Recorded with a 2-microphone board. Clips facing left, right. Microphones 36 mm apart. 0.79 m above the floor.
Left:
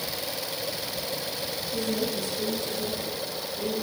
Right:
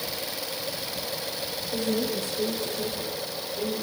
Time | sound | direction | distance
1.7 | a woman speaking | 55° right (ahead or behind) | 3 m